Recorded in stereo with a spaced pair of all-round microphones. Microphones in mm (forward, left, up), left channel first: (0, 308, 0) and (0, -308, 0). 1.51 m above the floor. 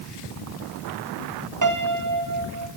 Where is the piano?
30° right (ahead or behind), 0.9 m.